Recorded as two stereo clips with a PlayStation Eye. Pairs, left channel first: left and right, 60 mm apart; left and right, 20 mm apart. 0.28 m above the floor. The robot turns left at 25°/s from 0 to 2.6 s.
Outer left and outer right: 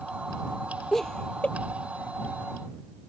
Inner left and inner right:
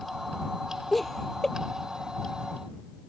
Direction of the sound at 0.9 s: 5° left (ahead or behind).